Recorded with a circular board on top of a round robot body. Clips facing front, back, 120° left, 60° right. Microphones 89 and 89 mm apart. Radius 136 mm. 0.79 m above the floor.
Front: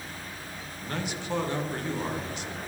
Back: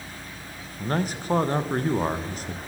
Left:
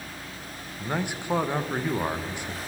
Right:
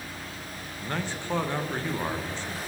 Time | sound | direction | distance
0.8 | a man speaking | 170° right | 0.9 m